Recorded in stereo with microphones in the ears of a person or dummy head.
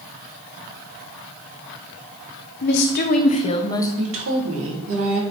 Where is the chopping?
I don't hear chopping.